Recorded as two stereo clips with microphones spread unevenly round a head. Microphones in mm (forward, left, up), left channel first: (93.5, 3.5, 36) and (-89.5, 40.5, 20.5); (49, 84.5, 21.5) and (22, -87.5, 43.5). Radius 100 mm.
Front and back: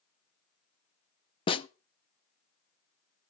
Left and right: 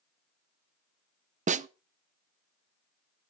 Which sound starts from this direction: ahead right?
A snare drum, at 1.5 s.